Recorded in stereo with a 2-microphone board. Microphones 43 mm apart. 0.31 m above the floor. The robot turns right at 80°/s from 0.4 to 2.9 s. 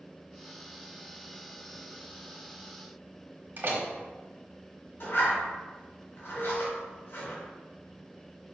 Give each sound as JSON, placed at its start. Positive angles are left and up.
{"t": 3.6, "sound": "a door slam", "side_deg": -50, "distance_m": 1.5}
{"t": 5.0, "sound": "a zipper", "side_deg": 55, "distance_m": 2.5}
{"t": 6.3, "sound": "a piano", "side_deg": -45, "distance_m": 1.8}